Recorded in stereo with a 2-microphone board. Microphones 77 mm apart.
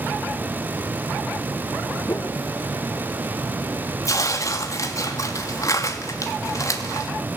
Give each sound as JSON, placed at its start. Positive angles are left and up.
{"t": 2.1, "sound": "a whoosh", "side_deg": 40, "distance_m": 1.3}
{"t": 4.0, "sound": "tearing paper", "side_deg": 45, "distance_m": 2.5}